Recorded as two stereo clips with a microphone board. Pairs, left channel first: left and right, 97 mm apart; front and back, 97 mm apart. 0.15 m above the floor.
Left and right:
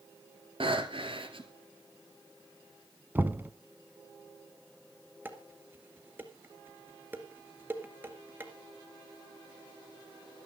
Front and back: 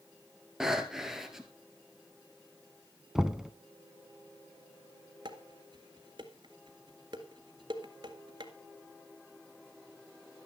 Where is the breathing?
95° right, 2.0 m.